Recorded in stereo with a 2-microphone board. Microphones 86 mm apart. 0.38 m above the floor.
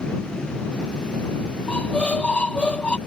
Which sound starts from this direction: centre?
A squeak, at 1.7 s.